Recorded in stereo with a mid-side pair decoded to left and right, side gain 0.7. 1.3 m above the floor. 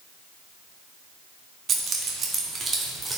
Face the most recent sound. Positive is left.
turn(degrees=-15)